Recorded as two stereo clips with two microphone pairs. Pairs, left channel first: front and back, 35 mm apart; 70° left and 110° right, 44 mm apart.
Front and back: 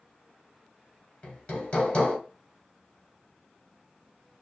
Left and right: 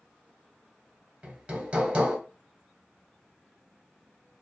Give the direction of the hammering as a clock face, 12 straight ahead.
2 o'clock.